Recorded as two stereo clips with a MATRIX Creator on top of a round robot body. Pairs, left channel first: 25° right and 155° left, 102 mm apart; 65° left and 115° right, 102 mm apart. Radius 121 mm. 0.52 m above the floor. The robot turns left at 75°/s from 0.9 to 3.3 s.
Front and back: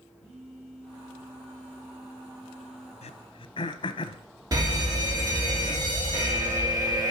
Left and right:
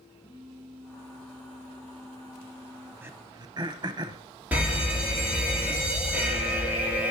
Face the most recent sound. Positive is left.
turn(degrees=175)